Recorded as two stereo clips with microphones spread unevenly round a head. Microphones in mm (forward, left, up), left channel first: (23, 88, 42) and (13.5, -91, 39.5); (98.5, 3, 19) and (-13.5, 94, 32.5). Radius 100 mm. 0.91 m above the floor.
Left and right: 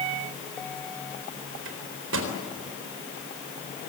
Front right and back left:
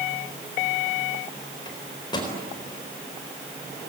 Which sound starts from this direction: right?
A microwave, at 1.6 s.